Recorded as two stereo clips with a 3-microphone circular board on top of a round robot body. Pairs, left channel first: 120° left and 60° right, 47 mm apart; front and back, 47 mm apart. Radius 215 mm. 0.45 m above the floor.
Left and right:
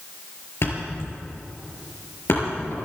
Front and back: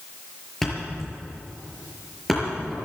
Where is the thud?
90° left, 5.5 m.